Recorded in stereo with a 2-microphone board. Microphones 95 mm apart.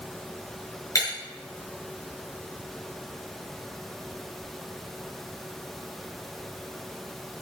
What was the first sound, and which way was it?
Breaking glass, 40° left (ahead or behind).